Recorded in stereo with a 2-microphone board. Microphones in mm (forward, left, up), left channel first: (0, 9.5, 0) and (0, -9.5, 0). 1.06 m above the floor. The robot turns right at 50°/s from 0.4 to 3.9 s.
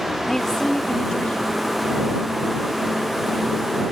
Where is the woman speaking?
25° left; by 1.6 s 85° left.